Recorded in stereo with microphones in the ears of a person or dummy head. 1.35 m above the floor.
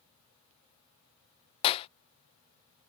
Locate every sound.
1.6 s a clap: 30° left (ahead or behind)